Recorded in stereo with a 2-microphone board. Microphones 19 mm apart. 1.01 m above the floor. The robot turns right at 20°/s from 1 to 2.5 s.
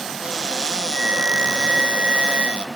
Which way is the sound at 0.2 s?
140° right.